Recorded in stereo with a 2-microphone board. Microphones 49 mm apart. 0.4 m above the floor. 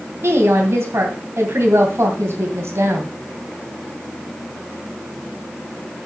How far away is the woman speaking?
About 2.5 m.